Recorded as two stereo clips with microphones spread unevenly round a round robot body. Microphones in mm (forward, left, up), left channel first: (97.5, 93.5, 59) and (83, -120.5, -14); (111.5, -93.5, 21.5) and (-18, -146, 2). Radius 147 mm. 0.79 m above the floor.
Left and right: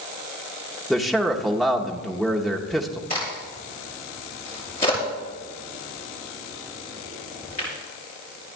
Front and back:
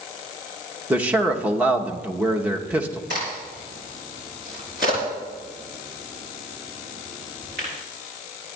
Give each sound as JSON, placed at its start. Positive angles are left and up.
{"t": 0.9, "sound": "a man speaking", "azimuth_deg": -125, "distance_m": 1.0}
{"t": 3.1, "sound": "a crack", "azimuth_deg": 155, "distance_m": 4.5}